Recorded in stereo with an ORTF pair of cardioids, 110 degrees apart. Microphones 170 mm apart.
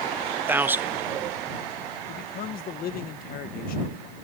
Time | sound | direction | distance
0.5 | a man speaking | 10° right | ?
2.1 | a man speaking | 65° left | ?